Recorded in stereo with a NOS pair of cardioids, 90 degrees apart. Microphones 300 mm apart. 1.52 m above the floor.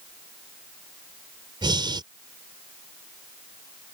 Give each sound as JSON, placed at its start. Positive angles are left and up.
{"t": 1.6, "sound": "breathing", "azimuth_deg": -15}